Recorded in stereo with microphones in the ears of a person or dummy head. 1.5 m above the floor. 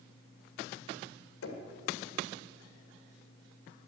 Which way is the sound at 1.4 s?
85° left.